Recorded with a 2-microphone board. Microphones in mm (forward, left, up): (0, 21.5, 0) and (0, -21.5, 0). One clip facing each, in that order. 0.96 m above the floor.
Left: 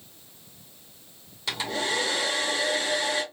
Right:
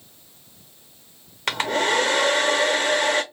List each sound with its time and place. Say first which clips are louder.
1.5 s a hair dryer: right 7 dB; 60° right (ahead or behind), 0.7 m